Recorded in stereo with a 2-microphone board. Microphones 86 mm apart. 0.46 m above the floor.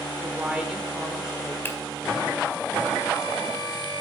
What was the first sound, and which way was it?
A woman speaking, 15° right (ahead or behind).